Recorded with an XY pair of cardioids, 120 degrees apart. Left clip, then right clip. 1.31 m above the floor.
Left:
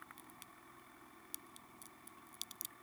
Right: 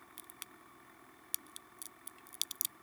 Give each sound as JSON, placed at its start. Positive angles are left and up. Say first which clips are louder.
{"t": 0.2, "sound": "a crack", "louder": "right 4 dB", "azimuth_deg": -50}